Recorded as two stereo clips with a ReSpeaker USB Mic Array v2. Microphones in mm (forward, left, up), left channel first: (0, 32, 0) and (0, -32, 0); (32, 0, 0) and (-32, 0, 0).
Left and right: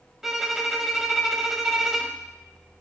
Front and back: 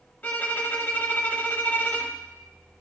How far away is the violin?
About 0.7 m.